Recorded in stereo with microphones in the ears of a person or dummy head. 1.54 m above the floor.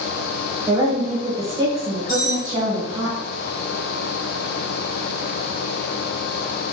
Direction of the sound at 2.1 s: 25° left (ahead or behind).